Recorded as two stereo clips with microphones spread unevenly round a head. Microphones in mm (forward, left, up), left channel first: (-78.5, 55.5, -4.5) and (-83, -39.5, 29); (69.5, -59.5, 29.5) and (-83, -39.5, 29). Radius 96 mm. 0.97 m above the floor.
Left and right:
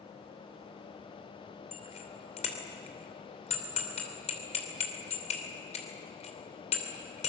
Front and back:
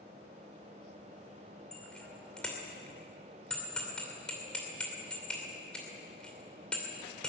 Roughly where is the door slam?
I don't hear a door slam.